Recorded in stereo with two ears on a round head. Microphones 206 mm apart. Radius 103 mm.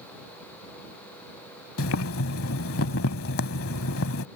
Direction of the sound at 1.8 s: 65° left (ahead or behind).